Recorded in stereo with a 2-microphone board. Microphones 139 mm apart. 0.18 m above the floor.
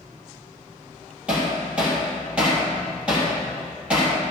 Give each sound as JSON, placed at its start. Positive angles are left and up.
{"t": 1.3, "sound": "hammering", "side_deg": -10, "distance_m": 3.5}